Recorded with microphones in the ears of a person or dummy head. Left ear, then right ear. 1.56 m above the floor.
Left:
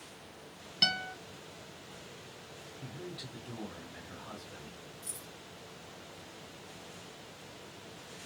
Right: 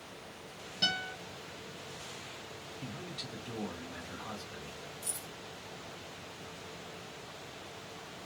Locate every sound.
0.8 s a guitar: 35° left (ahead or behind), 1.0 m
2.8 s a man speaking: 35° right (ahead or behind), 1.3 m
5.0 s keys jangling: 50° right (ahead or behind), 1.0 m